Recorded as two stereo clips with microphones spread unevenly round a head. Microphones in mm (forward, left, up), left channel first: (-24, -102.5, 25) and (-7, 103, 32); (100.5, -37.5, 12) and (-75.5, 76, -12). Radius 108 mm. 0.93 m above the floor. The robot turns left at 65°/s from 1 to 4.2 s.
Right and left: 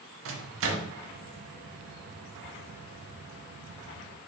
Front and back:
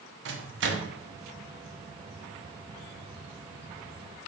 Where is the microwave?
110° left, 0.7 m.